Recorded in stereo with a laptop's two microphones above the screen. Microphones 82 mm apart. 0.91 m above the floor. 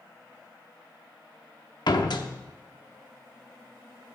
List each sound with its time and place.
1.9 s a door slam: 60° left (ahead or behind), 1.0 m